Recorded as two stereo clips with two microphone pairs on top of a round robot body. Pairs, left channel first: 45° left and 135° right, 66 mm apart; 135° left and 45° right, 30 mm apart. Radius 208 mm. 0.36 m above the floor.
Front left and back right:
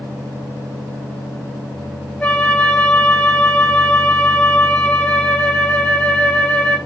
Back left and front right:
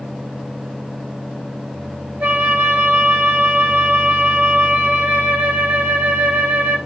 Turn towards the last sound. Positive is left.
turn(degrees=-35)